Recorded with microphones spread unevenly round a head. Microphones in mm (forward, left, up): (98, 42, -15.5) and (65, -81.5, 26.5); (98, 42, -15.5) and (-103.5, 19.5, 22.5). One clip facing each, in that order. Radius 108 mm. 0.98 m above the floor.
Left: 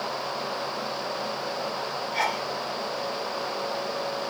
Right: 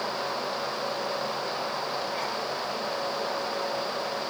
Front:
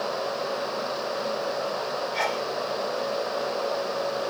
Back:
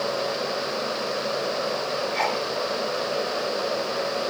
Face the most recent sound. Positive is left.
turn(degrees=85)